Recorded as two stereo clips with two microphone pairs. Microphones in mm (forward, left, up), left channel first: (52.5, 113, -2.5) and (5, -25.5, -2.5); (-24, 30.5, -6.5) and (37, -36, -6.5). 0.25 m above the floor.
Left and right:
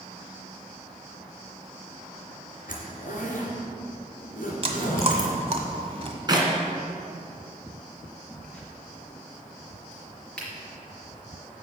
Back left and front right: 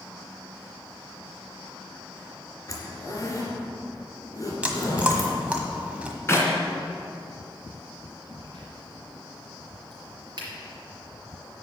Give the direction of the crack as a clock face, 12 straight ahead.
12 o'clock.